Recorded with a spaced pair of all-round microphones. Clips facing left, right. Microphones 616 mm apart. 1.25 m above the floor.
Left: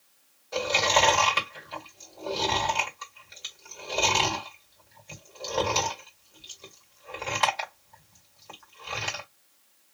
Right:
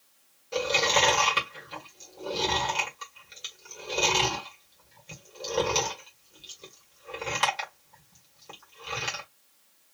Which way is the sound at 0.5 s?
55° right (ahead or behind).